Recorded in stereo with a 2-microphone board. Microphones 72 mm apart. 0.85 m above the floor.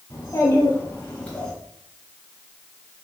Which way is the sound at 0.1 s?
40° left (ahead or behind).